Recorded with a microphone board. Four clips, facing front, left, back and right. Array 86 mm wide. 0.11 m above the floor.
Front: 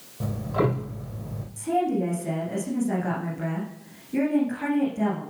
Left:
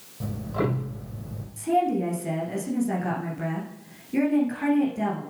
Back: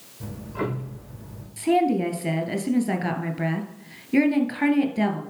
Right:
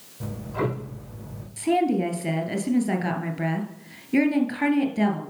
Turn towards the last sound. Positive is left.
turn(degrees=-140)